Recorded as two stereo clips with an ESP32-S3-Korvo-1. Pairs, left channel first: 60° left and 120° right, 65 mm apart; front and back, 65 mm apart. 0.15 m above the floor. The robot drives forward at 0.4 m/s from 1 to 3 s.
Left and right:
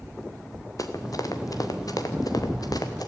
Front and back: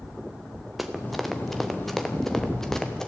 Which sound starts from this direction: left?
Running footsteps, at 0.8 s.